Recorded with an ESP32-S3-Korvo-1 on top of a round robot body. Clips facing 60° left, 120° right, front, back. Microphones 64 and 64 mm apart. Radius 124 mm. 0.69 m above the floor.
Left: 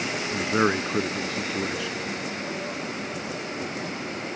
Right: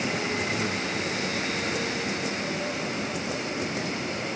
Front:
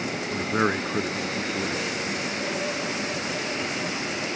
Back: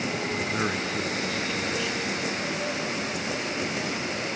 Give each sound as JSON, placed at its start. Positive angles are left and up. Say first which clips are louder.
{"t": 0.3, "sound": "a man speaking", "louder": "left 5 dB, front 7 dB", "azimuth_deg": 60}